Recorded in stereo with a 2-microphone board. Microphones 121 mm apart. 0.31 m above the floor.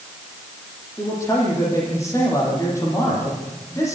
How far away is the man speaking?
About 9 m.